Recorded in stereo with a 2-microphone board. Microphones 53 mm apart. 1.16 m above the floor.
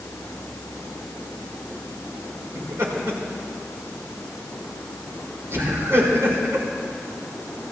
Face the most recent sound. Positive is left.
turn(degrees=-60)  # may be behind; listen again after turning